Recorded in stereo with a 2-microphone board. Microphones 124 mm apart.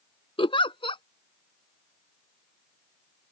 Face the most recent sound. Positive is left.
turn(degrees=50)  # may be behind; listen again after turning